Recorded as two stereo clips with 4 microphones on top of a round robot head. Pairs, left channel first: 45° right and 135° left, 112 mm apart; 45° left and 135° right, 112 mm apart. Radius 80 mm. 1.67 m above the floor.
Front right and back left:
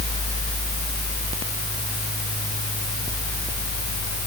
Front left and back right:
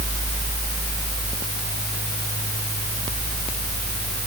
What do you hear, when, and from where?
Only background noise.